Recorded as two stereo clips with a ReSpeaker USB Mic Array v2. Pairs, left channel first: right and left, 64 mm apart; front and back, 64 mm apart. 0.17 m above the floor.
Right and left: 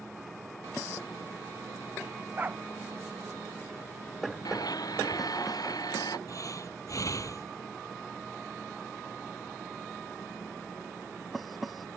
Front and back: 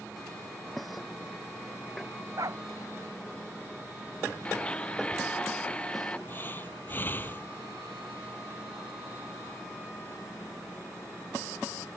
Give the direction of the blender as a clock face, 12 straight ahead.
2 o'clock.